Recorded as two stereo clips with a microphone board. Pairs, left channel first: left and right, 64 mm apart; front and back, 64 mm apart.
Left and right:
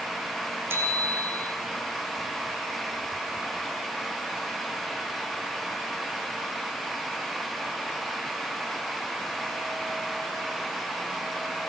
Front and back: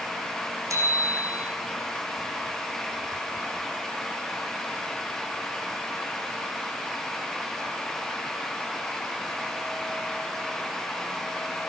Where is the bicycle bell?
145° right, 7 m.